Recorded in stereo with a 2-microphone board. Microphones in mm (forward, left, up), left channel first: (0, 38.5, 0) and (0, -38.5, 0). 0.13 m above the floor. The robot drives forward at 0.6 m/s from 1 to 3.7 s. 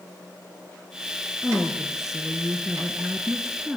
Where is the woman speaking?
5° right (ahead or behind), 2.5 m.